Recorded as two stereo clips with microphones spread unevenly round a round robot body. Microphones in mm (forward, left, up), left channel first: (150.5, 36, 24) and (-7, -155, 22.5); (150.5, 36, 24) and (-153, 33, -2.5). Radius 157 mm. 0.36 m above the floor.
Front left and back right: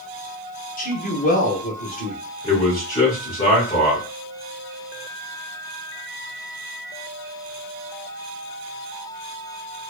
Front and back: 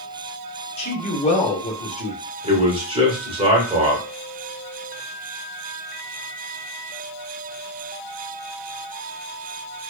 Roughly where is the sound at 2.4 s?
Behind left.